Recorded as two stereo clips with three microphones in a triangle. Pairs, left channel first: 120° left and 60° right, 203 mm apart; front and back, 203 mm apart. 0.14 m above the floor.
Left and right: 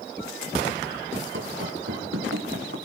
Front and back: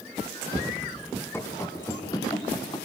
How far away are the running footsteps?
About 3.5 m.